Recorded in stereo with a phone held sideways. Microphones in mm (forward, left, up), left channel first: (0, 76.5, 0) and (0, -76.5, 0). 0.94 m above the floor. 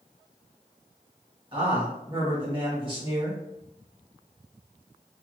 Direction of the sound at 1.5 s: 30° right (ahead or behind).